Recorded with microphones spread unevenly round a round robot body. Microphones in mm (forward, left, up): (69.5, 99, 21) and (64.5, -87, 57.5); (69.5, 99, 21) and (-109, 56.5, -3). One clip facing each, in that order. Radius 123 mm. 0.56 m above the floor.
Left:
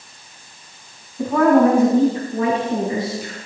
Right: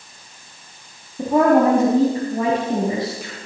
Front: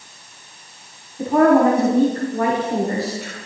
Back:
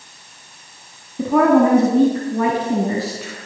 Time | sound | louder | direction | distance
1.2 | a woman speaking | left 1 dB, even | 165° right | 4.5 m